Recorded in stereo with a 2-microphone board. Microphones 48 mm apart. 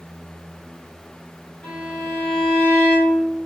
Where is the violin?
30° left (ahead or behind), 2 m.